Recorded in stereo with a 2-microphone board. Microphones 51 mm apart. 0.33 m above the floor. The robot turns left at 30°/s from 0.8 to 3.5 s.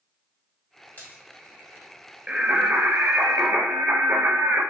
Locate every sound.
1.0 s a splash: 35° left (ahead or behind), 1.3 m; by 1.2 s 40° left (ahead or behind), 1.3 m
2.3 s singing: 20° right, 1.2 m; by 4.6 s 55° right, 1.2 m